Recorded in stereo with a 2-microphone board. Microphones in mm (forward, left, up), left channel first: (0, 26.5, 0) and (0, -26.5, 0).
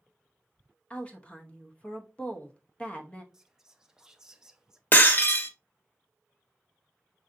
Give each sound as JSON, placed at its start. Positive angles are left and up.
{"t": 0.9, "sound": "a woman speaking", "side_deg": 25, "distance_m": 0.8}
{"t": 3.3, "sound": "whispering", "side_deg": -15, "distance_m": 0.5}
{"t": 4.9, "sound": "breaking glass", "side_deg": 40, "distance_m": 0.6}